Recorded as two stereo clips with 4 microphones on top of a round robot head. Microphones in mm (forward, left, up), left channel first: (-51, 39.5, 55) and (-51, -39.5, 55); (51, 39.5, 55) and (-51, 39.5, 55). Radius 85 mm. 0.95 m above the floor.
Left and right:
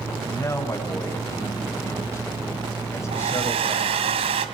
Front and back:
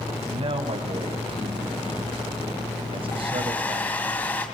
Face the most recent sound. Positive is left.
turn(degrees=-80)